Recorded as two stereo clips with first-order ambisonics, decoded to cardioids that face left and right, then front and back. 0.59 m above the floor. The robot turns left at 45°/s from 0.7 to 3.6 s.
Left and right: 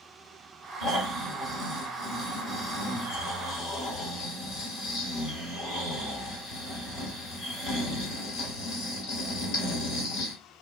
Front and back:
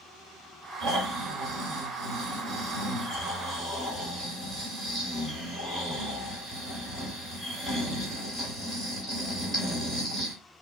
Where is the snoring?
145° right, 2 m; by 10.3 s 90° left, 2 m.